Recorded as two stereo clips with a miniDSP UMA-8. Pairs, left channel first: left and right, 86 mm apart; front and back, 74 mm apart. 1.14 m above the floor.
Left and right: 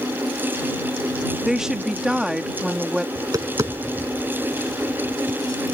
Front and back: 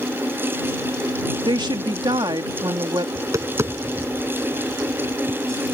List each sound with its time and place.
1.4 s a woman speaking: 175° right
3.1 s tapping: 135° right